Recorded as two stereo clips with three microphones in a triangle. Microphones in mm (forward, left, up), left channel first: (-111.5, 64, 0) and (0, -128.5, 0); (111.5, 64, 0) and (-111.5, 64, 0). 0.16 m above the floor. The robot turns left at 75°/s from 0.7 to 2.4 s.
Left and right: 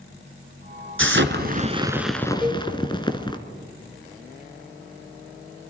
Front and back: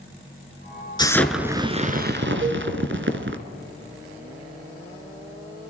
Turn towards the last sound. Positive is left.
turn(degrees=-150)